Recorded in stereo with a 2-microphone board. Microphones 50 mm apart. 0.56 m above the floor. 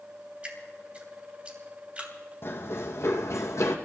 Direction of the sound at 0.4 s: 25° right (ahead or behind).